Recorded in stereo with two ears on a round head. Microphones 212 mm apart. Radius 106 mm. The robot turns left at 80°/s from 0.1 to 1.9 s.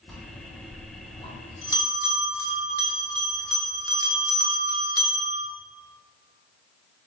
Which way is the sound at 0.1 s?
Centre (ahead or behind).